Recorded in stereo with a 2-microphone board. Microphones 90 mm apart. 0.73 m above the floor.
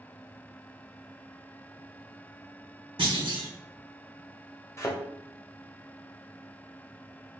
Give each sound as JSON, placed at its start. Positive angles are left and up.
{"t": 3.0, "sound": "a clunk", "side_deg": -65, "distance_m": 2.0}
{"t": 4.8, "sound": "a thud", "side_deg": 30, "distance_m": 1.0}